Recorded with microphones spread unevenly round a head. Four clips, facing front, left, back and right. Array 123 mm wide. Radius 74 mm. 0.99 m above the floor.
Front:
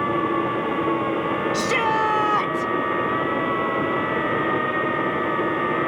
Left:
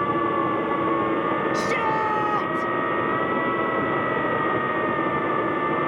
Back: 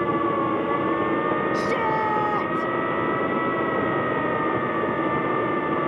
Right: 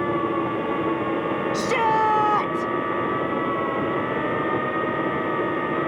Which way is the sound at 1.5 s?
90° right.